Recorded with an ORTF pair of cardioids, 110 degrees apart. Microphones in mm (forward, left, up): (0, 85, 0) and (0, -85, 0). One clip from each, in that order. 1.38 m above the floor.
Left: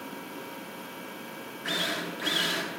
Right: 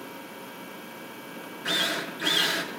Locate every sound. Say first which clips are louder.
1.6 s a drill: right 3 dB; 20° right, 3.5 m